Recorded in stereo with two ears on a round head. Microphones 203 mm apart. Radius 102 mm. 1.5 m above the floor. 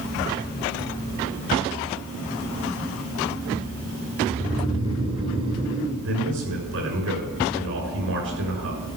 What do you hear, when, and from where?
4.3 s snoring: 25° right (ahead or behind), 1.3 m
6.0 s a man speaking: 70° right (ahead or behind), 5.5 m